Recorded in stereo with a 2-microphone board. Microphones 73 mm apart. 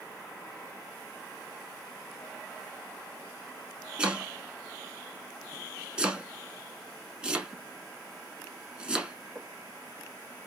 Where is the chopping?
15° right (ahead or behind), 0.8 m.